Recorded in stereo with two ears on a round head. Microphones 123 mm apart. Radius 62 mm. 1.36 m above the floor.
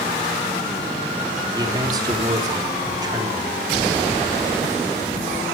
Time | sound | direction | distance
1.6 | a man speaking | 30° right (ahead or behind) | 3.5 m